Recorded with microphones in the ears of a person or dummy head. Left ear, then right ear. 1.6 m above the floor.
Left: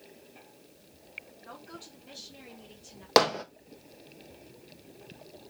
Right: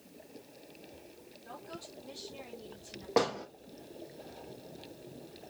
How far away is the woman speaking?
About 4 m.